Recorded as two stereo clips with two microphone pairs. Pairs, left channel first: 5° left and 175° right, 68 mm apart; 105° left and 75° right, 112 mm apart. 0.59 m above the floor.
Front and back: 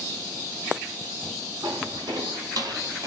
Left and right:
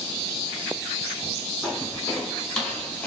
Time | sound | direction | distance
1.6 | footsteps | 170° right | 1.9 m